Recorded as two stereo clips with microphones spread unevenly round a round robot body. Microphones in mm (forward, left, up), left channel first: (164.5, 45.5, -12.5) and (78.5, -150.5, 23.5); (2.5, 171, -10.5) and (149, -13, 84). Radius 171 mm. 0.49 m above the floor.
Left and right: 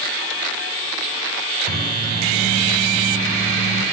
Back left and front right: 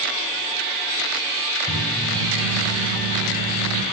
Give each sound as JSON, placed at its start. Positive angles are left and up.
{"t": 1.7, "sound": "a microwave", "azimuth_deg": -105, "distance_m": 3.5}